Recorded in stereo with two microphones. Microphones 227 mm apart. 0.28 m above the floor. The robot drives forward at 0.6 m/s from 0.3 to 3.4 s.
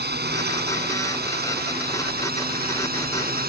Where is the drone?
45° right (ahead or behind); by 3.5 s 40° right (ahead or behind).